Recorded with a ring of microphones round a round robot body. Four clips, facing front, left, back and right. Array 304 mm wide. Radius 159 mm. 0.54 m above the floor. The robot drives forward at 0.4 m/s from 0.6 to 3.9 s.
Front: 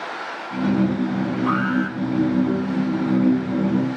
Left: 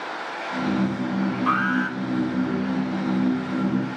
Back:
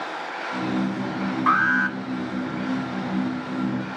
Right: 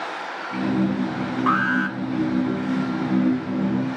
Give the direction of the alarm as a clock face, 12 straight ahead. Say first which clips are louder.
Right 4 dB, back 4 dB; 5 o'clock.